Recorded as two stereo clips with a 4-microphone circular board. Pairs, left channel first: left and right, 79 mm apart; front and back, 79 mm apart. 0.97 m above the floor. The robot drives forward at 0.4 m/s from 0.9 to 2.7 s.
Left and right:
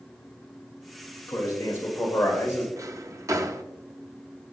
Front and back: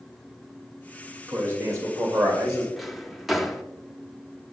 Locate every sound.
1.3 s a man speaking: 130° left, 1.8 m; by 2.7 s 145° left, 2 m
2.8 s a drawer: 90° right, 0.5 m